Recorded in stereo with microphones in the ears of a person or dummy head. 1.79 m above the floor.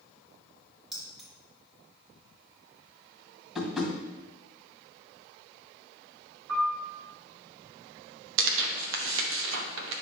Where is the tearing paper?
75° right (ahead or behind), 1.2 m.